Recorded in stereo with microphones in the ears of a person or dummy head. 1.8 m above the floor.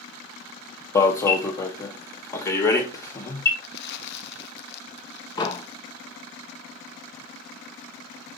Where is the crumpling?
55° left (ahead or behind), 0.7 m.